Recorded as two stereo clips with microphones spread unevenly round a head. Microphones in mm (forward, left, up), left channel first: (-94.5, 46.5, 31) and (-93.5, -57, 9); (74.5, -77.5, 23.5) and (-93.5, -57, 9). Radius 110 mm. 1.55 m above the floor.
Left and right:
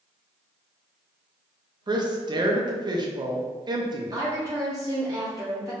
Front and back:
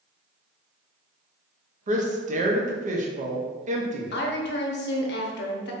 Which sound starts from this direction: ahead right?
A woman speaking, at 4.1 s.